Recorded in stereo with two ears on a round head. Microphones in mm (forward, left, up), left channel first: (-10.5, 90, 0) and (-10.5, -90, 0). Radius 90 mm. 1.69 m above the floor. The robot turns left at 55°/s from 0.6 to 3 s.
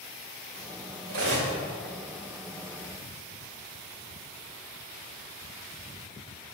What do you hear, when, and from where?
1.1 s cutlery clinking: 45° right (ahead or behind), 1.7 m; by 1.5 s 60° right (ahead or behind), 1.7 m